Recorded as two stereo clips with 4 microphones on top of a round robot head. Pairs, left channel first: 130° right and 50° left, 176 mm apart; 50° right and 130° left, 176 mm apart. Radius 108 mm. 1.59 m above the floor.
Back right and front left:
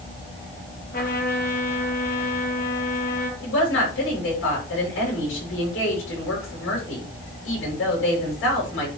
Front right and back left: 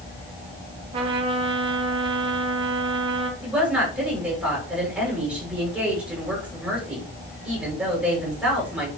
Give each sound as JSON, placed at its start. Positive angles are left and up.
{"t": 0.9, "sound": "a trumpet", "azimuth_deg": -165, "distance_m": 3.0}
{"t": 3.4, "sound": "a woman speaking", "azimuth_deg": -145, "distance_m": 6.5}